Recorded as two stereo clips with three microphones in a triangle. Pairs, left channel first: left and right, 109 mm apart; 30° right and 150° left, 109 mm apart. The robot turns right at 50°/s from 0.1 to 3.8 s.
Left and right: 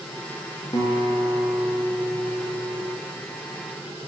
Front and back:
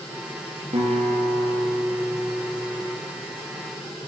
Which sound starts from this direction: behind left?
A guitar, at 0.7 s.